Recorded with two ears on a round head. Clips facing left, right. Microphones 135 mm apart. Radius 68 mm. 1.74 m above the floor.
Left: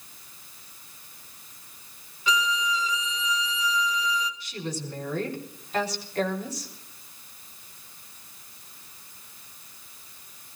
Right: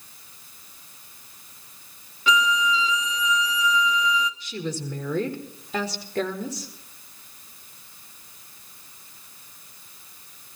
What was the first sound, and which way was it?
A violin, 55° right (ahead or behind).